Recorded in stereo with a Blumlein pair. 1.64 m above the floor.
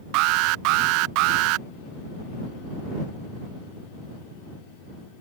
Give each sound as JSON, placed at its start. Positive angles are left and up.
{"t": 0.1, "sound": "an alarm", "azimuth_deg": -40}